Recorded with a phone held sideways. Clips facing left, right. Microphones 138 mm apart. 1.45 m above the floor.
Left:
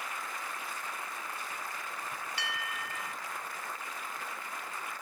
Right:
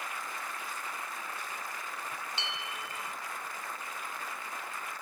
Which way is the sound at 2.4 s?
25° right (ahead or behind).